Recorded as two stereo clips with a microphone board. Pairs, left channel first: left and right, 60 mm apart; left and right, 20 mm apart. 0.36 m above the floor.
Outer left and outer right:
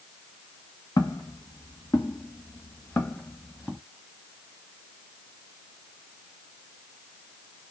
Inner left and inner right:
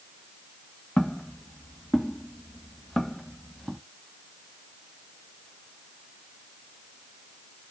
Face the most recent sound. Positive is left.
turn(degrees=15)  # may be behind; listen again after turning